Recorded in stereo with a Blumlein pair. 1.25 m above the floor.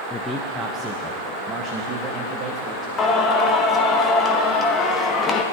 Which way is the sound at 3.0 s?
20° left.